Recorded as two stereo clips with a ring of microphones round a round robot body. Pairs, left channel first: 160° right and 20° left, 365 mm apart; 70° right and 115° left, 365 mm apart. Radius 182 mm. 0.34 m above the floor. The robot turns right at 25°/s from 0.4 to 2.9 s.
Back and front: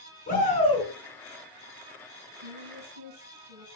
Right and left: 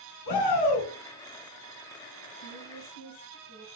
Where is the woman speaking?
30° right, 3 m; by 3.7 s 20° right, 3 m.